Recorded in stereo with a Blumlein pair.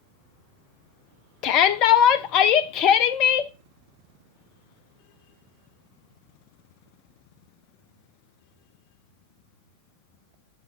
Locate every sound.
1.4 s a shout: 40° left, 0.9 m